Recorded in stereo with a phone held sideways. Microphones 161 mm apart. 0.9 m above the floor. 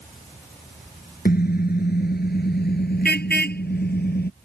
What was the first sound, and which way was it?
A car horn, 70° left (ahead or behind).